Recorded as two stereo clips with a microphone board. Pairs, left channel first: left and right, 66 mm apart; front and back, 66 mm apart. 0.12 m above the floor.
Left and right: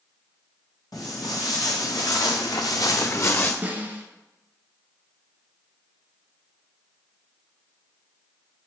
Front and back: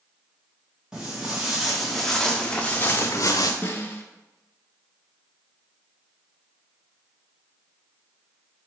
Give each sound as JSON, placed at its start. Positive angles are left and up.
{"t": 0.9, "sound": "footsteps", "azimuth_deg": 105, "distance_m": 1.6}
{"t": 3.6, "sound": "a snare drum", "azimuth_deg": -45, "distance_m": 0.8}